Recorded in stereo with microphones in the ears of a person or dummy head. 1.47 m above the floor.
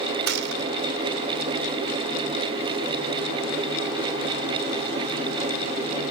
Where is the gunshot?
60° right (ahead or behind), 1.3 m.